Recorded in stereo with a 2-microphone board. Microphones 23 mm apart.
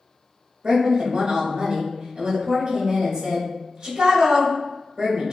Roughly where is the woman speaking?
Right.